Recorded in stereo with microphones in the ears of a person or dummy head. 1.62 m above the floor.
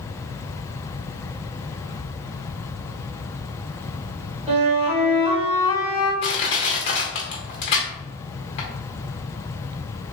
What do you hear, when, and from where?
4.5 s a flute: 40° right (ahead or behind), 1.9 m
6.2 s crushing: 25° left (ahead or behind), 0.7 m